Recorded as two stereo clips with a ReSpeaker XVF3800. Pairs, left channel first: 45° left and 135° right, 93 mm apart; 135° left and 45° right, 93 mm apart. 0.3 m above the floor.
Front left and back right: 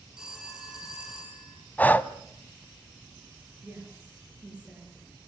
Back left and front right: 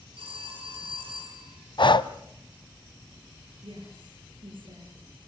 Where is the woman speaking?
60° right, 6.5 m.